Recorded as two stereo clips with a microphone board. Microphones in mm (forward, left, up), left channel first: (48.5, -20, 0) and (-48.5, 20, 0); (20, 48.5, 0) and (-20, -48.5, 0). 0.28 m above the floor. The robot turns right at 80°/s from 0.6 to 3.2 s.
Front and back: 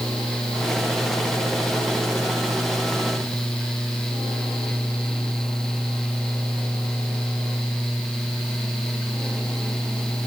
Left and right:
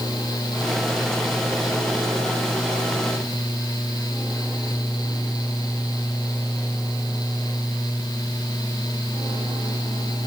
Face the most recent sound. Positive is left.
No sound to turn to.